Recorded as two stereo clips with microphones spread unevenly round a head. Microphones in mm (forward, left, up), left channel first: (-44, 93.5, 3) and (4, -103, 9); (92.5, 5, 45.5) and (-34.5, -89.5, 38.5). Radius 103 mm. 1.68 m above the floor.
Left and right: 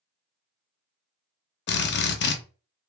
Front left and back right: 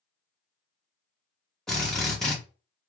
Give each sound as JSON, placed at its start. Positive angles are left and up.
{"t": 1.7, "sound": "a drill", "azimuth_deg": 120, "distance_m": 0.6}